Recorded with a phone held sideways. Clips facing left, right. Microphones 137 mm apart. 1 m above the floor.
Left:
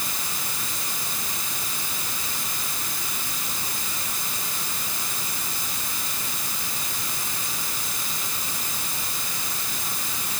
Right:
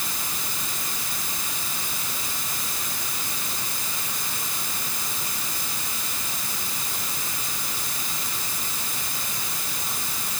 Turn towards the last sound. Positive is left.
No sound to turn to.